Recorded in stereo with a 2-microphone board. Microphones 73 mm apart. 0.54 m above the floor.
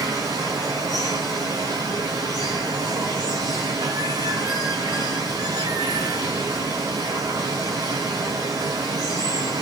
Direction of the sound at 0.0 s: 70° right (ahead or behind).